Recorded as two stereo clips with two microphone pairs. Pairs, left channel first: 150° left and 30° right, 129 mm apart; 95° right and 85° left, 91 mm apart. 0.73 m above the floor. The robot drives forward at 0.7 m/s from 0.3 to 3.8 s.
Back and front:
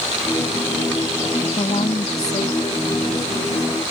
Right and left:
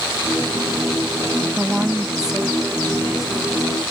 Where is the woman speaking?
155° left; by 3.8 s 175° left.